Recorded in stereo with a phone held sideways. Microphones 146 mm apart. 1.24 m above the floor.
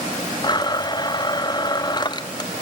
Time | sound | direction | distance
0.4 | a blender | 30° left (ahead or behind) | 0.6 m